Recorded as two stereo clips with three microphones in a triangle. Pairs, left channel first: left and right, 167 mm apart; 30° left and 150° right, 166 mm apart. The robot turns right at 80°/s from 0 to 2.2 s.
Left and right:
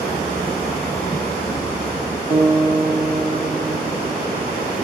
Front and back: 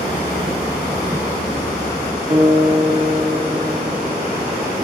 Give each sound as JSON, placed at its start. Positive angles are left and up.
{"t": 2.3, "sound": "a guitar", "azimuth_deg": -115, "distance_m": 3.5}